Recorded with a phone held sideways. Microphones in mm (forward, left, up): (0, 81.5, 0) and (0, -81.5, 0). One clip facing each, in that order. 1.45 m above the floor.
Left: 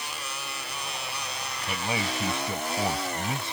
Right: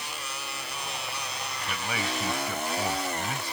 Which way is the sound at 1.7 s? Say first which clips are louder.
Left 3 dB; 25° left (ahead or behind).